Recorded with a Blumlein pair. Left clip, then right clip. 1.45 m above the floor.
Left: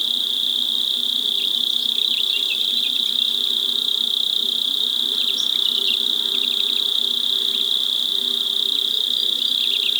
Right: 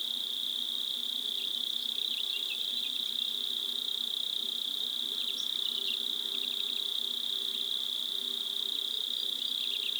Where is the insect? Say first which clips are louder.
Left 14 dB; 55° left.